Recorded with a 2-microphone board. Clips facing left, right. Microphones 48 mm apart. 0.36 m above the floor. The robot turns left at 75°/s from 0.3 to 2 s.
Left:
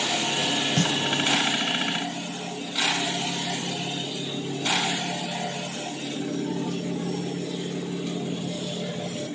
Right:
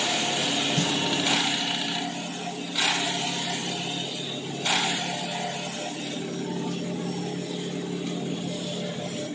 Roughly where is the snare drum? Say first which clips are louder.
Left 5 dB; left.